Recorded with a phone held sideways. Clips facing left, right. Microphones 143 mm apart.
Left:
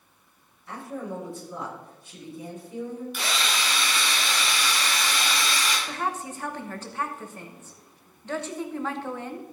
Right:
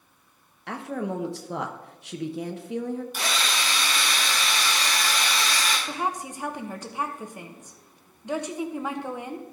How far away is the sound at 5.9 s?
About 1.1 m.